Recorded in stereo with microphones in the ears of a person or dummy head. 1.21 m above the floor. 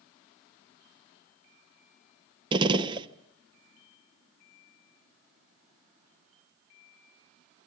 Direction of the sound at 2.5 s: 20° right (ahead or behind).